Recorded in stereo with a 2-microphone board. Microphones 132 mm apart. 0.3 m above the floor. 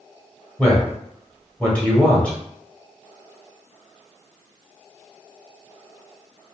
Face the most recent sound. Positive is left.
turn(degrees=10)  # may be behind; listen again after turning